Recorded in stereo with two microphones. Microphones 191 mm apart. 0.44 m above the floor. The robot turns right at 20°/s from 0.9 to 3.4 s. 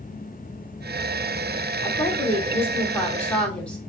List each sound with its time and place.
1.8 s a woman speaking: 15° left (ahead or behind), 0.8 m; by 3.8 s 5° left (ahead or behind), 0.8 m